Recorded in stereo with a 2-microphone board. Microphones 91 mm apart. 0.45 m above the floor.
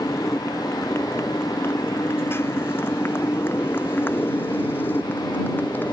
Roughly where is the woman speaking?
No woman speaking in this recording.